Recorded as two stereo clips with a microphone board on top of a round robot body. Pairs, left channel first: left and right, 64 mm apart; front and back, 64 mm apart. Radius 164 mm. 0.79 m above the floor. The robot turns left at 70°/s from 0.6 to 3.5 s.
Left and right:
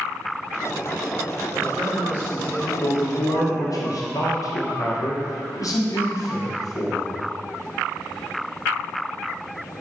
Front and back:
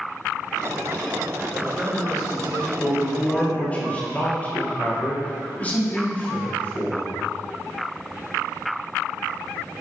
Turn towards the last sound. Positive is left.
turn(degrees=65)